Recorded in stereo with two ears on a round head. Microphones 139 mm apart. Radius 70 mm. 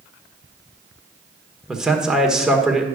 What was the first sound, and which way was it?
A man speaking, 5° right (ahead or behind).